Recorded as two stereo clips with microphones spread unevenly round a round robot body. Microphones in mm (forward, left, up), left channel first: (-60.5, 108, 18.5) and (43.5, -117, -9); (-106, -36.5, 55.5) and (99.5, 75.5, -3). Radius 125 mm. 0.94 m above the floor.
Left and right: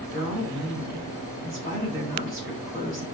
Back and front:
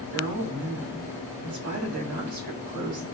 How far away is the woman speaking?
About 3 m.